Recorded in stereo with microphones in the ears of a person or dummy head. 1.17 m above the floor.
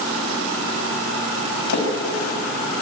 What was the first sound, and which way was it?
A splash, 70° left (ahead or behind).